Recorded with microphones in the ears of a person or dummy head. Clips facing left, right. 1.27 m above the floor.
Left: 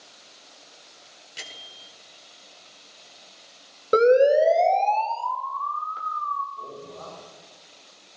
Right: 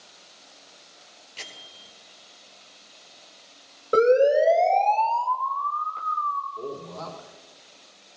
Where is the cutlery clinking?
I don't hear cutlery clinking.